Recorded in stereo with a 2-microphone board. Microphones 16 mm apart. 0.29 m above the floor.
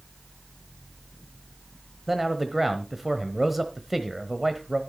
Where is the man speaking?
10° right (ahead or behind), 1.1 m.